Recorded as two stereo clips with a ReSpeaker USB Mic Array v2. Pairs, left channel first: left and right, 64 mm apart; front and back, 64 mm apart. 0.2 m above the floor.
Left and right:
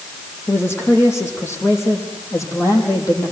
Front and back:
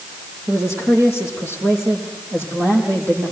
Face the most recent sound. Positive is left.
turn(degrees=130)